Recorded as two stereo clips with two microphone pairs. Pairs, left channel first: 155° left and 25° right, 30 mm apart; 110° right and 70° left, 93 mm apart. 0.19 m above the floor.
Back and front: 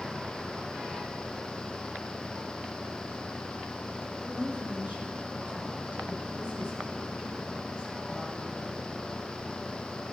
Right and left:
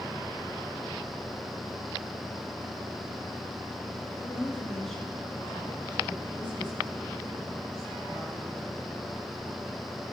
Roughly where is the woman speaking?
Ahead right.